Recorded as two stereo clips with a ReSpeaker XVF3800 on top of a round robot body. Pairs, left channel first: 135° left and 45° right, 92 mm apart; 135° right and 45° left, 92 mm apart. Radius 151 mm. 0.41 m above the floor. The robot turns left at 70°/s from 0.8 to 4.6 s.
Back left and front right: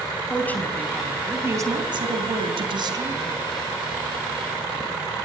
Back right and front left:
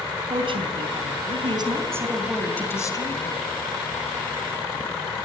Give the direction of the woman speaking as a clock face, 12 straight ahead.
10 o'clock.